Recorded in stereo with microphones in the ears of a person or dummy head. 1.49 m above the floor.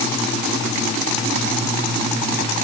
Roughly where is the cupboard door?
No cupboard door in this recording.